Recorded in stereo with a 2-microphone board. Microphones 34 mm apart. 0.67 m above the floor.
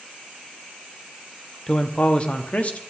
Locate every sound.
1.7 s a man speaking: 25° left (ahead or behind), 1.1 m; by 2.8 s 45° left (ahead or behind), 1.5 m